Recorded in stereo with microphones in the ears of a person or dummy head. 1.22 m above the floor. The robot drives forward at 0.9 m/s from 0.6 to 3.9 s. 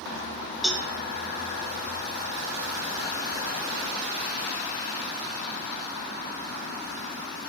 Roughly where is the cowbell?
Centre.